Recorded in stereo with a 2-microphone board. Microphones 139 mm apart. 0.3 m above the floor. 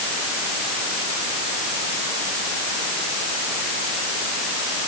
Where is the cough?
No cough in this recording.